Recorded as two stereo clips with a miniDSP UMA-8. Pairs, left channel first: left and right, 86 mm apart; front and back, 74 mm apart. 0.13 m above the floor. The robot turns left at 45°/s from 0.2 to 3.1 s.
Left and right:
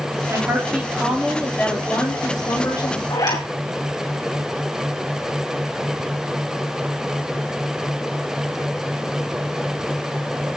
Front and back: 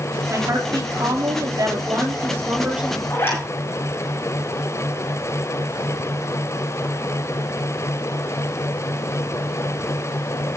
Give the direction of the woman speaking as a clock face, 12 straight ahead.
5 o'clock.